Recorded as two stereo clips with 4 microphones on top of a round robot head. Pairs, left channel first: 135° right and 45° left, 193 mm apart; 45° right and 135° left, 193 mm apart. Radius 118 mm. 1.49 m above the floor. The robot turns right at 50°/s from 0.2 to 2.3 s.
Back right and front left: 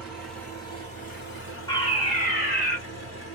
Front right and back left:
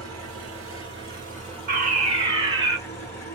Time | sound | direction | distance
0.0 | an engine running | 130° left | 1.3 m
1.7 | a fire alarm | 160° left | 1.4 m